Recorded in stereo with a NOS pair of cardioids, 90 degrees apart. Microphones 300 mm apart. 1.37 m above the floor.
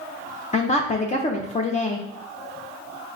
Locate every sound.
0.5 s a woman speaking: 25° left, 0.5 m